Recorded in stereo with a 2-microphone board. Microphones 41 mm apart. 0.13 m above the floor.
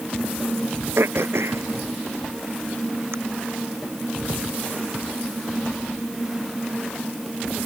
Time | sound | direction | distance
1.0 | throat clearing | 80° right | ?